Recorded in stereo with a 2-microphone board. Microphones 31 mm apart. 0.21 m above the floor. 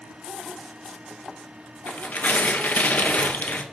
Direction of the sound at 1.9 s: 65° left (ahead or behind).